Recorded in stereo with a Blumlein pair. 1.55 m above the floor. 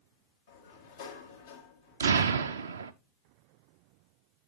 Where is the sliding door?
60° left, 1.8 m.